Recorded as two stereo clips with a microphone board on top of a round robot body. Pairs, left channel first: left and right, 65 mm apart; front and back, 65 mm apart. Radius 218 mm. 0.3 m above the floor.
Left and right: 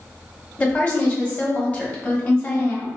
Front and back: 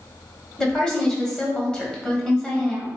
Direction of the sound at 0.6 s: 55° left.